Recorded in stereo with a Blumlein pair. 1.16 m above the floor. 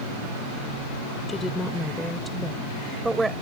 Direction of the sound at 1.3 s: 10° left.